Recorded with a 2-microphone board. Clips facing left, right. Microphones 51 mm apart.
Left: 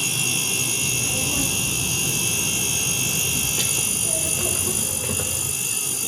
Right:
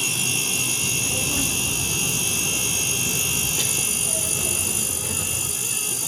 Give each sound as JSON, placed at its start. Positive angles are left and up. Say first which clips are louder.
{"t": 0.8, "sound": "a child speaking", "louder": "even", "side_deg": -15, "distance_m": 3.5}